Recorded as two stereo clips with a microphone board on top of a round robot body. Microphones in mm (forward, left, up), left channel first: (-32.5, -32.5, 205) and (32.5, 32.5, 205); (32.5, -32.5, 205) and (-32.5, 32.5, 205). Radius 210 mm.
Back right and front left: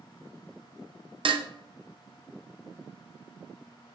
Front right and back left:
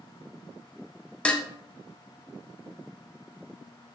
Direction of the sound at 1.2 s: 35° left.